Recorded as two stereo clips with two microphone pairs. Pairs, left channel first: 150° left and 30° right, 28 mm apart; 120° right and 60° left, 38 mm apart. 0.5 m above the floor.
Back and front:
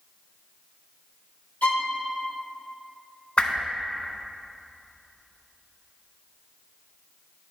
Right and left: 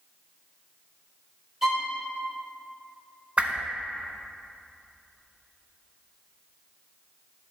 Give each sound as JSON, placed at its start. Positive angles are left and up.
{"t": 1.6, "sound": "a violin", "azimuth_deg": 135, "distance_m": 1.1}
{"t": 3.4, "sound": "a whoosh", "azimuth_deg": 110, "distance_m": 0.6}